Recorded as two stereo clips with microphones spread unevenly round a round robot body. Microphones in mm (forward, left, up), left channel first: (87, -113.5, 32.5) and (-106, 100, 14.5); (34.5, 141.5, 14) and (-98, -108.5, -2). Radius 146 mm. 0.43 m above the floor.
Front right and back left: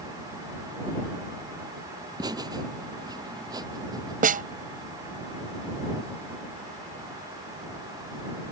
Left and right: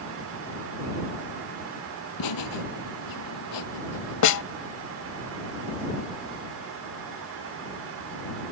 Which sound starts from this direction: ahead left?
Laughter, at 2.2 s.